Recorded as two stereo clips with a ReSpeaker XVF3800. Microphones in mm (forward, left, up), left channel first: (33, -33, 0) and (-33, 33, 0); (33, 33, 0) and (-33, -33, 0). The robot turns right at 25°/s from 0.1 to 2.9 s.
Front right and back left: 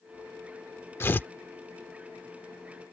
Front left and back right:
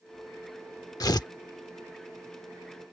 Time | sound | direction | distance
1.0 | tearing paper | 15° left | ?